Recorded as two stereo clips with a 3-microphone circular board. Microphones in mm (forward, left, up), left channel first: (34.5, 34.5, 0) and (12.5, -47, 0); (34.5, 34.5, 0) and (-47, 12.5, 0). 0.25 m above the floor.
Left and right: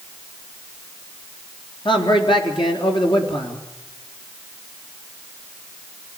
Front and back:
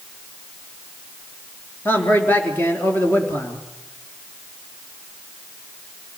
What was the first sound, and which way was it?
A man speaking, 80° left.